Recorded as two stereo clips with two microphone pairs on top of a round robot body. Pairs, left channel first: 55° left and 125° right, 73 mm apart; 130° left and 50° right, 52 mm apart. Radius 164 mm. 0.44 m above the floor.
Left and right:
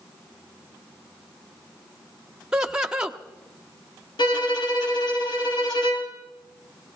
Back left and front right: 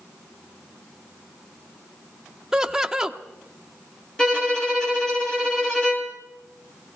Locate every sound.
2.5 s laughter: 70° right, 1.3 m
4.2 s a violin: 55° left, 3.5 m